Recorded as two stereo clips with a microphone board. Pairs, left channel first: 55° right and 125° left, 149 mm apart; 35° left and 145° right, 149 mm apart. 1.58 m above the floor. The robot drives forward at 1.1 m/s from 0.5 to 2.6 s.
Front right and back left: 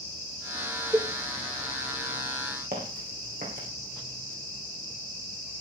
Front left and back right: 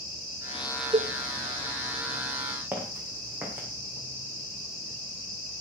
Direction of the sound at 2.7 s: 135° left.